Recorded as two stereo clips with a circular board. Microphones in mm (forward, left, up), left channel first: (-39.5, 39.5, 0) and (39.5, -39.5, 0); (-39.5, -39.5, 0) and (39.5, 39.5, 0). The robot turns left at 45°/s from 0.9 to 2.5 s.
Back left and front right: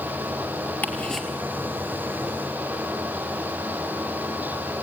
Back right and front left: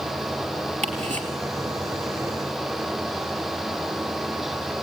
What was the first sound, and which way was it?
Ticking, 60° left.